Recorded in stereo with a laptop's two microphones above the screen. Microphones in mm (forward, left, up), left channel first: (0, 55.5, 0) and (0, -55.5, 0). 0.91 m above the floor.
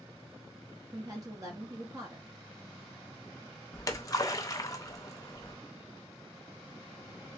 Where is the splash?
35° left (ahead or behind), 0.5 m.